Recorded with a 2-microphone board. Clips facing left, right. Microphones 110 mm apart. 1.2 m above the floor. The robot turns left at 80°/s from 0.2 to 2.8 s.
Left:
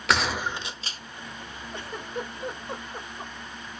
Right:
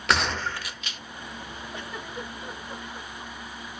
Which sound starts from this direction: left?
A giggle, at 1.7 s.